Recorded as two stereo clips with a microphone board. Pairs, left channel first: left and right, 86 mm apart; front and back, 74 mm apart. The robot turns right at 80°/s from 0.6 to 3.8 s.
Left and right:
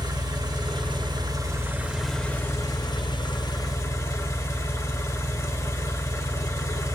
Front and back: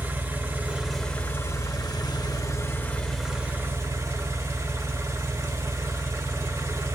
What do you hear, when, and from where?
0.0 s an engine running: 120° right, 1.1 m; by 7.0 s 135° left, 1.1 m